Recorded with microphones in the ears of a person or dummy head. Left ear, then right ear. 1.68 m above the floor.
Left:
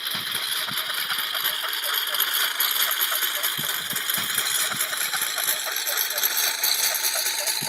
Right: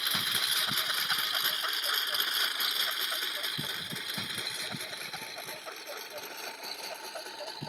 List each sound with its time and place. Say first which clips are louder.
0.0 s a lawn mower: left 2 dB; 10° left (ahead or behind); by 7.7 s 65° left (ahead or behind)